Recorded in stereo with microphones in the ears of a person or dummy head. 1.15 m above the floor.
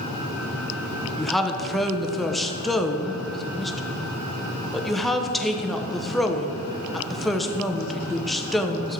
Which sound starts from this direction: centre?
A woman speaking, at 1.2 s.